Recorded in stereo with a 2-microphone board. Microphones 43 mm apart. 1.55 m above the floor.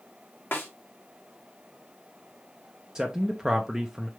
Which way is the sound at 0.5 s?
55° left (ahead or behind).